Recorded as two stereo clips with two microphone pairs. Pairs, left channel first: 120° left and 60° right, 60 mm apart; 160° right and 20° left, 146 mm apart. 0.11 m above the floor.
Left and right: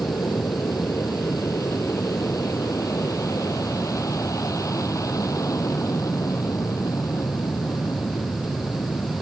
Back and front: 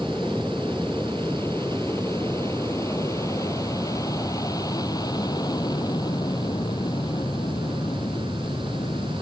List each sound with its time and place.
0.0 s an aircraft: 125° left; by 9.2 s 140° left